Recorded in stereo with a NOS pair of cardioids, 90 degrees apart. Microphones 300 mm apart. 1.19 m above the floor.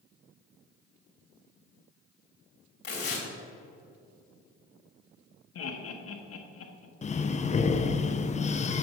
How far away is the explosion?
No explosion in this recording.